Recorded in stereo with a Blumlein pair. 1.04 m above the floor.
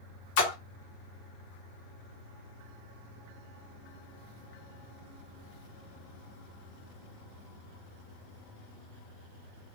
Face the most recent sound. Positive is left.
turn(degrees=45)